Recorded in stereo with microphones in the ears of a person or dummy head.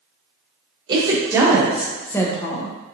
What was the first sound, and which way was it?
A woman speaking, 20° right (ahead or behind).